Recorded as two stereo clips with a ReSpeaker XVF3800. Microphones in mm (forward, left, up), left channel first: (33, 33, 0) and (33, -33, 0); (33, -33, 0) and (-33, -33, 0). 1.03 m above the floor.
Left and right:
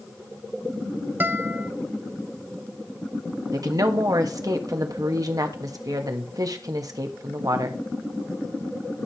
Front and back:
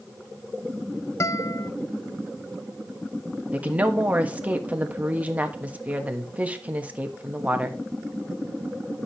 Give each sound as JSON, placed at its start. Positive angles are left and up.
{"t": 1.2, "sound": "a guitar", "azimuth_deg": -35, "distance_m": 0.6}
{"t": 3.5, "sound": "a woman speaking", "azimuth_deg": -110, "distance_m": 1.5}